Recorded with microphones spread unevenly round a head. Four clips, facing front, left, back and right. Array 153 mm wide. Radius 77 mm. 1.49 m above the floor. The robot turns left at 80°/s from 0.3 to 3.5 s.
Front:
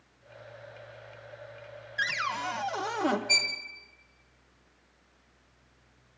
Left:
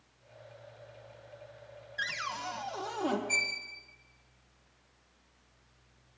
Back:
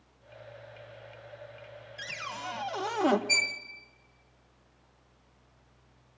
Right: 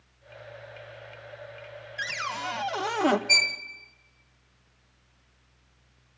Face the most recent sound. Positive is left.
turn(degrees=-75)